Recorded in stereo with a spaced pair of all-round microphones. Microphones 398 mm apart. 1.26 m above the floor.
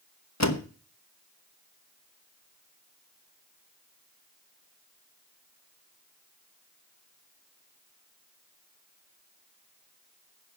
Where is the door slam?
40° left (ahead or behind), 1.3 m.